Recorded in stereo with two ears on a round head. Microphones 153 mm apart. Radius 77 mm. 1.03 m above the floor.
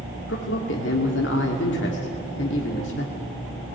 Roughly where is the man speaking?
Left.